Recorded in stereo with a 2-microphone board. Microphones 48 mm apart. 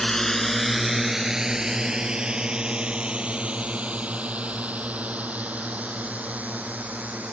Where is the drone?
15° left (ahead or behind); by 7.3 s 30° right (ahead or behind).